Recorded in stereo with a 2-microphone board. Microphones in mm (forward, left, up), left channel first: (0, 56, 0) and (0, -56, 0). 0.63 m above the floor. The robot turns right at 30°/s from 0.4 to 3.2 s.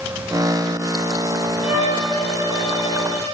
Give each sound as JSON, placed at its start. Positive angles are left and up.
{"t": 1.6, "sound": "a violin", "azimuth_deg": 75, "distance_m": 8.0}